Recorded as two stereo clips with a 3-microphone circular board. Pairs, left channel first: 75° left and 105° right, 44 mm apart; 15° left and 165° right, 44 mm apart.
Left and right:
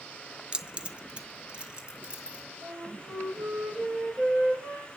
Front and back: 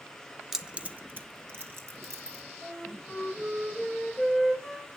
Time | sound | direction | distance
0.5 | keys jangling | 95° right | 0.9 m
2.6 | a flute | 85° right | 7 m